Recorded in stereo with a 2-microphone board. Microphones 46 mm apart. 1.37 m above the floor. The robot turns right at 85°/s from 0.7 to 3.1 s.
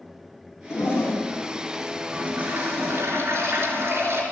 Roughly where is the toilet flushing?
Left.